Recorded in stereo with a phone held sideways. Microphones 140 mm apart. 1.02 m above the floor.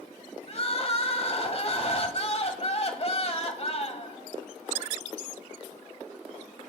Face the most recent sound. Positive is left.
turn(degrees=45)  # may be behind; listen again after turning